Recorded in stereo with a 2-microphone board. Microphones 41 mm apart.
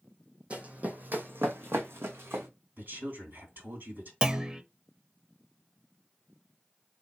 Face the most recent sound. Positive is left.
turn(degrees=-20)  # may be behind; listen again after turning